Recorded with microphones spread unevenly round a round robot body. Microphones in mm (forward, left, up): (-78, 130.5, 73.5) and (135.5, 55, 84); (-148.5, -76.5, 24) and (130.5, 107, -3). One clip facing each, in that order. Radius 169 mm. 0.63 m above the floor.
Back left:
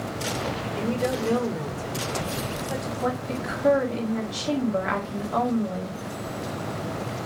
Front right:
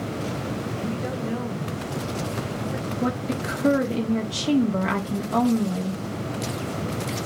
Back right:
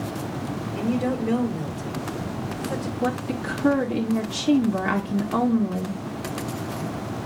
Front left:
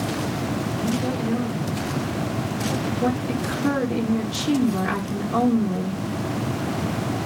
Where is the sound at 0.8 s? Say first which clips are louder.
Back left 3 dB, back right 3 dB; straight behind, 3 m.